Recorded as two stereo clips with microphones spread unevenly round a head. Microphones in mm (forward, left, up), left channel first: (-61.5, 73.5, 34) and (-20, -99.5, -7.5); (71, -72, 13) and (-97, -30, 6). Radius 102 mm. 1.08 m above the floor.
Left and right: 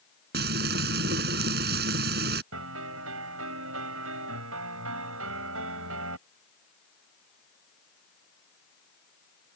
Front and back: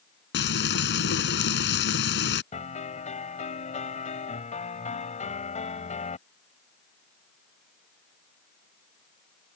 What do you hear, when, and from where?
0.3 s frying: 30° right
2.5 s a piano: 65° right